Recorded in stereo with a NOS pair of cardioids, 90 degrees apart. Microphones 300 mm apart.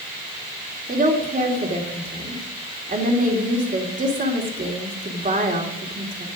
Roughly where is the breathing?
I don't hear breathing.